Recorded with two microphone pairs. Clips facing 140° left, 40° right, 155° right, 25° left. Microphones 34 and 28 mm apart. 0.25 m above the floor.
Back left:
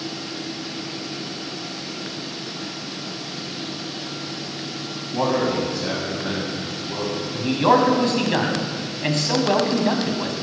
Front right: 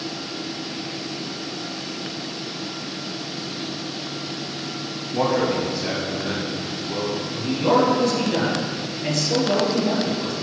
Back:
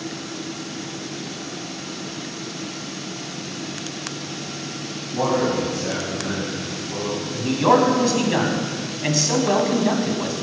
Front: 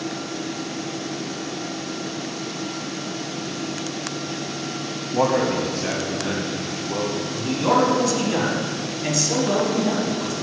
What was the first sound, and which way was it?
A man speaking, 55° left.